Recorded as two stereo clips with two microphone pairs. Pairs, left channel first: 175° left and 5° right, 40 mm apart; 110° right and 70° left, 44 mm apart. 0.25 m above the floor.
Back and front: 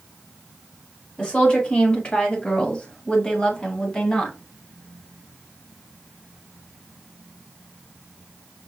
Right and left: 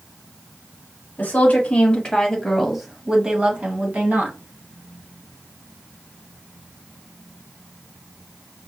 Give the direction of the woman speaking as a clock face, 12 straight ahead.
4 o'clock.